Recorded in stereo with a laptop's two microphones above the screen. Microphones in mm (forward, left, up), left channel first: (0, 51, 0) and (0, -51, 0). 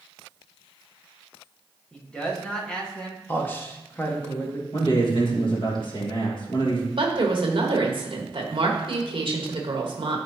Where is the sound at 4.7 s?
50° left (ahead or behind), 1.5 m.